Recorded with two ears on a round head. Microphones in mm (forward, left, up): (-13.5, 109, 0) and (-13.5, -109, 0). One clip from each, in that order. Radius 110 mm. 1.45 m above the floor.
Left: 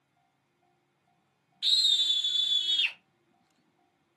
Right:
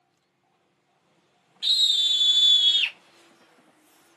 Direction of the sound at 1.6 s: 10° right (ahead or behind).